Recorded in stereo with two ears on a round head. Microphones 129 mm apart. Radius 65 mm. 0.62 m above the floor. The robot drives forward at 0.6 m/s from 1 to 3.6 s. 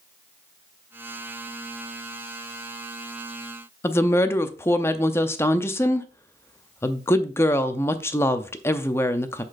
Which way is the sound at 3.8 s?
15° left (ahead or behind).